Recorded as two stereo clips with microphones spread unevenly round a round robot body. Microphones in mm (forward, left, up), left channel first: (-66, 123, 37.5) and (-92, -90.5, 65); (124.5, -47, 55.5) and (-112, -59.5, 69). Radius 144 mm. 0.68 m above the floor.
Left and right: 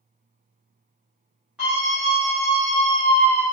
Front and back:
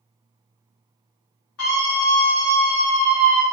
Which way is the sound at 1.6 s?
5° right.